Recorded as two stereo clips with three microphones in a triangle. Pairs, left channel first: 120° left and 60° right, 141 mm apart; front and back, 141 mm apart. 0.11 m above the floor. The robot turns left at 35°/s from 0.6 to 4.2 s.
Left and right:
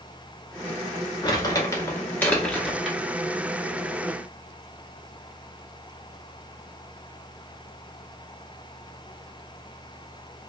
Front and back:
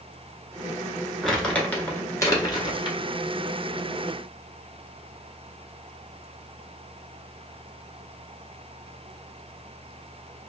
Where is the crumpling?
90° left, 1.0 m; by 3.0 s 25° left, 1.0 m.